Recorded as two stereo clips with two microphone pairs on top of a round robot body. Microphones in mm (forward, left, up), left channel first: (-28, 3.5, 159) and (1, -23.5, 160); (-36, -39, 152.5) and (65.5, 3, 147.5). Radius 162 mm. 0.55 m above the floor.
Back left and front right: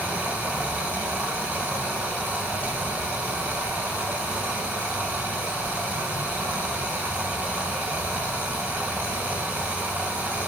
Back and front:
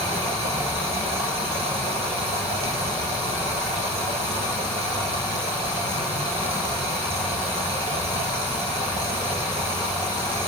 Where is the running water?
5° right, 5.5 m.